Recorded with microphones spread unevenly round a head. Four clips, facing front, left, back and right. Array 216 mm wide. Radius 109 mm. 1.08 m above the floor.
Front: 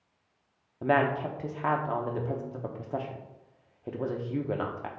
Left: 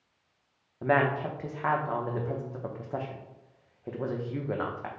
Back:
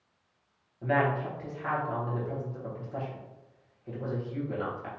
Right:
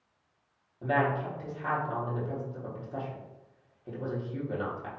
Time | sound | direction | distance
0.8 | a woman speaking | 40° left | 0.8 m